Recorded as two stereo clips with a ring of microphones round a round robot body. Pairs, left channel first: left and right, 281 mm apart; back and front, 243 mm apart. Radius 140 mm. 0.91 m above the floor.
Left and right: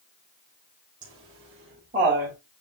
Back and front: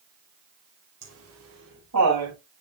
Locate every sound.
1.0 s laughter: 15° right, 2.5 m; by 2.4 s 25° right, 3.5 m